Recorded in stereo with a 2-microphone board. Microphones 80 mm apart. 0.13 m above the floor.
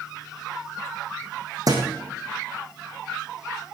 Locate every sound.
1.7 s a thud: 50° right (ahead or behind), 3 m